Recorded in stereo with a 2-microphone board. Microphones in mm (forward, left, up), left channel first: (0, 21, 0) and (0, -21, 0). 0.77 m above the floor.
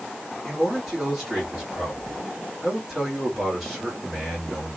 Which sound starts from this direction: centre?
A man speaking, at 0.4 s.